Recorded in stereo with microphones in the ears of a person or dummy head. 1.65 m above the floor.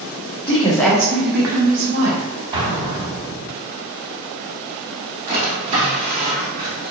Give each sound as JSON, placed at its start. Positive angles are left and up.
{"t": 0.5, "sound": "a woman speaking", "side_deg": 30, "distance_m": 1.0}
{"t": 2.5, "sound": "an explosion", "side_deg": -35, "distance_m": 1.9}
{"t": 5.3, "sound": "a drawer", "side_deg": -30, "distance_m": 1.6}